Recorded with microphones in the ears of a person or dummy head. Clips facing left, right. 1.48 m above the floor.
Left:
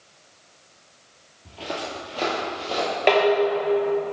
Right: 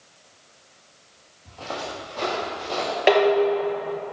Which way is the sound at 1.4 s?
45° left (ahead or behind).